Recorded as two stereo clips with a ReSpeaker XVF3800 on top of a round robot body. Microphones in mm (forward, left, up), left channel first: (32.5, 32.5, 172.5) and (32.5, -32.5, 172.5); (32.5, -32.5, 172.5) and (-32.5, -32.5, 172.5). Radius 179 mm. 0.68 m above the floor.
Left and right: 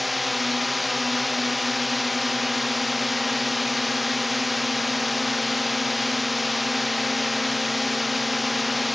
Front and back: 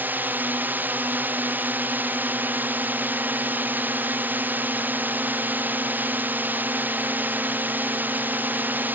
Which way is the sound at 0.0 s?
Straight behind.